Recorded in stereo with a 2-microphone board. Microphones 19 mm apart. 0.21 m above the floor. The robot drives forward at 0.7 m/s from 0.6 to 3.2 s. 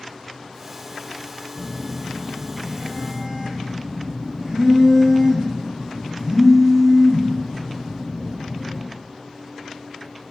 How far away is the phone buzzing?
About 0.9 m.